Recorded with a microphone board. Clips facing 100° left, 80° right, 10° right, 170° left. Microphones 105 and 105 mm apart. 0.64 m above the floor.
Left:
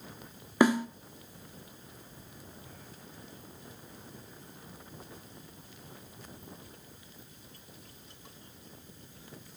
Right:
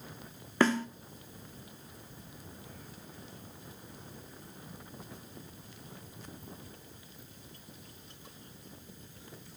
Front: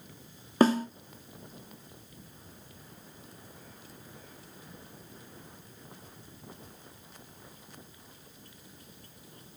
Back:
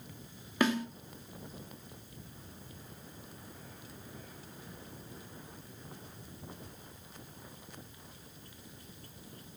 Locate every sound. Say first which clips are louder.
0.6 s a snare drum: left 3 dB, front 7 dB; 25° left, 0.9 m